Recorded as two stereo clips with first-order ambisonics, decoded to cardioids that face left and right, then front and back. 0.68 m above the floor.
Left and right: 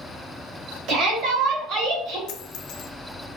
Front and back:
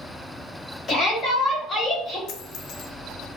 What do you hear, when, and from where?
0.9 s a shout: 65° right, 1.6 m; by 2.2 s 85° right, 2.5 m
2.3 s a dropped coin: 50° left, 0.6 m